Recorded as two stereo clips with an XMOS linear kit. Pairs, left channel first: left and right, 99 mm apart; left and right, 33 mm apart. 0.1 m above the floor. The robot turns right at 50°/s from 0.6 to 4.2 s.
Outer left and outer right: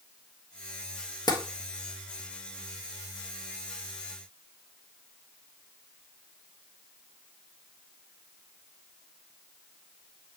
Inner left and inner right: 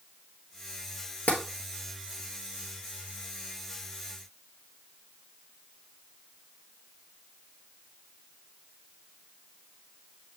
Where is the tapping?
50° left (ahead or behind), 1.4 m.